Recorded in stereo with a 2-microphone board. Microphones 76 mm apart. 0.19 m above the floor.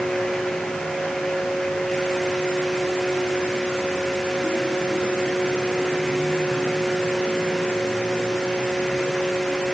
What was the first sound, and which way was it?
Only background noise.